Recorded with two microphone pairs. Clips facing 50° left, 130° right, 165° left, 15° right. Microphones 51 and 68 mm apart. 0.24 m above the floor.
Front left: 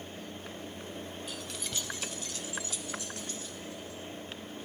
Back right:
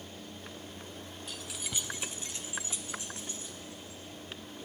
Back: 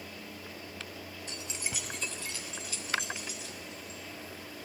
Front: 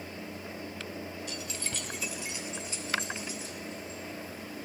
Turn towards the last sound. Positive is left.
turn(degrees=-65)